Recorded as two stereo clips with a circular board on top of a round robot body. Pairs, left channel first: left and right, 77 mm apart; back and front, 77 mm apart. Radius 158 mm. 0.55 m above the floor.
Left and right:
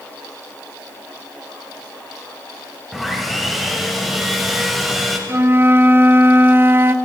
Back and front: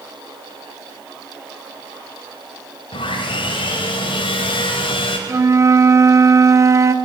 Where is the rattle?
No rattle in this recording.